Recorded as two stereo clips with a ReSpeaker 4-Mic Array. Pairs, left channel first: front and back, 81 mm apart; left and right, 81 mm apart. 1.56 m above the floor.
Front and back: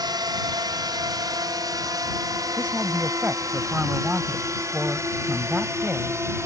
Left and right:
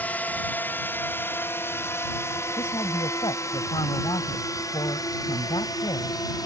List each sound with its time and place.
0.0 s a drone: 160° left; by 6.5 s 125° left
2.6 s a woman speaking: 110° left